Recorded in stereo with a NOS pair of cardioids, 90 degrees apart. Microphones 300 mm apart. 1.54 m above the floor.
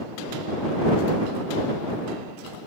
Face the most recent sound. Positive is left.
No sound to turn to.